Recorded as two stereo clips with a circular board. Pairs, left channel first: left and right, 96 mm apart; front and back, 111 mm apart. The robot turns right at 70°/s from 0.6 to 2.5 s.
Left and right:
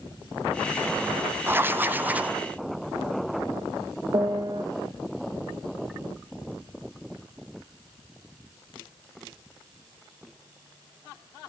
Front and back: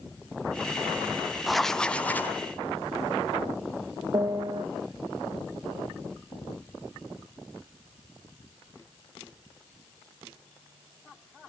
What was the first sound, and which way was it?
Writing, 95° right.